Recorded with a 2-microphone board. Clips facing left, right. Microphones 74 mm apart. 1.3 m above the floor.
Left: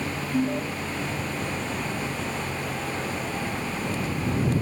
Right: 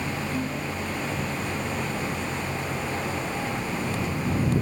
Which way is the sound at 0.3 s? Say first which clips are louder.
Left 4 dB; 45° left (ahead or behind).